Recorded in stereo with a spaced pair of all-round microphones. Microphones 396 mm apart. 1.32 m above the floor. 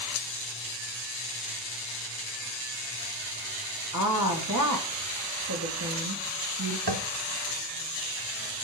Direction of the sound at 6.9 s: 70° right (ahead or behind).